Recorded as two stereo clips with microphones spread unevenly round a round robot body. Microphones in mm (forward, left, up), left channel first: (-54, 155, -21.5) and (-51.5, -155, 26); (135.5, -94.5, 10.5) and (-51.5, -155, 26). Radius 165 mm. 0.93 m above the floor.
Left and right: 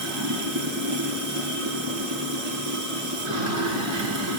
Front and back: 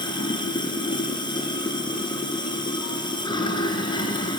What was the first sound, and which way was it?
Running water, 50° right.